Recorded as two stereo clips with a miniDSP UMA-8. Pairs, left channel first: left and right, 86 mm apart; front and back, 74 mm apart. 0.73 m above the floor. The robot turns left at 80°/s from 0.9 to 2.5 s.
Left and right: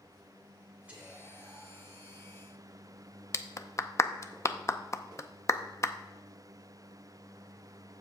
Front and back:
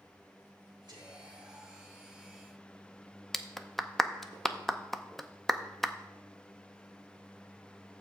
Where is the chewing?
I don't hear chewing.